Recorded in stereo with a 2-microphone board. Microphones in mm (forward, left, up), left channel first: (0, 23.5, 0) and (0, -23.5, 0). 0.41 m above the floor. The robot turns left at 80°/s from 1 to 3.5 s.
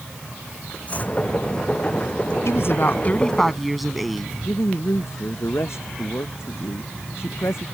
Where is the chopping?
35° left (ahead or behind); by 1.2 s 45° left (ahead or behind).